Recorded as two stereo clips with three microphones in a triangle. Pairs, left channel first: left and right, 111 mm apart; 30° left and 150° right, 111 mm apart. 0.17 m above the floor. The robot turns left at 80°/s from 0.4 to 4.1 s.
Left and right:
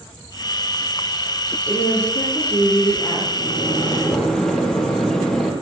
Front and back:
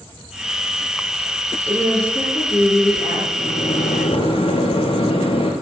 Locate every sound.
1.7 s a woman speaking: 140° left, 5.5 m; by 3.2 s 15° left, 5.5 m
3.4 s a microwave: 65° left, 3 m; by 5.5 s 5° left, 3 m